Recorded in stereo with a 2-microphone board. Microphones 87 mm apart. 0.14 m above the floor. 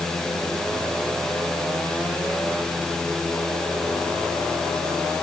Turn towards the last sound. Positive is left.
No sound to turn to.